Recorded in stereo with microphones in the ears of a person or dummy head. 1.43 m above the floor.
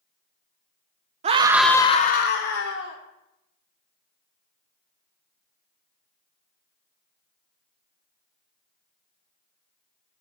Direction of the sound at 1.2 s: 35° right (ahead or behind).